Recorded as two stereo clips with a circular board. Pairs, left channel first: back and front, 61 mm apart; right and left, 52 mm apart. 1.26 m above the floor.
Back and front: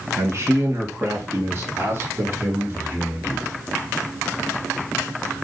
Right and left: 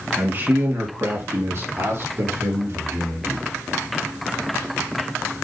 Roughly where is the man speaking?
Ahead left.